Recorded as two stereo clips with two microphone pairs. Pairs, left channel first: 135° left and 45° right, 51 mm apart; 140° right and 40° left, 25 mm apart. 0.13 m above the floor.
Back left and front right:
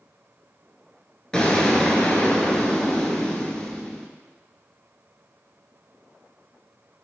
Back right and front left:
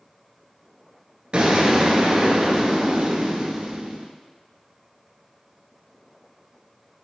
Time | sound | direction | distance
1.3 | an explosion | 65° left | 0.6 m